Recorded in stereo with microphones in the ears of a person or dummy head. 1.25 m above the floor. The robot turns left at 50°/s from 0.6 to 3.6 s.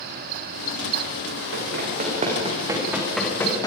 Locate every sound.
1.5 s running footsteps: 70° right (ahead or behind), 7.5 m; by 3.7 s 20° left (ahead or behind), 5.5 m